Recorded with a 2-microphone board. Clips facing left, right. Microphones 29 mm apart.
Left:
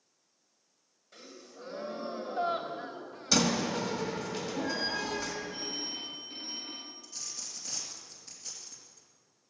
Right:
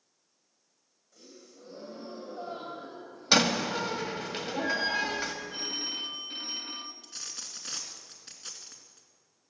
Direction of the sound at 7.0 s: 50° right (ahead or behind).